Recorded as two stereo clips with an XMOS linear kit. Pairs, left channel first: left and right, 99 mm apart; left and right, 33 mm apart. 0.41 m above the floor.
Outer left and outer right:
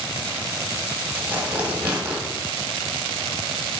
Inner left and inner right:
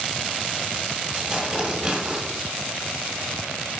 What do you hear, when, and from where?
1.1 s tearing paper: 20° right (ahead or behind), 1.1 m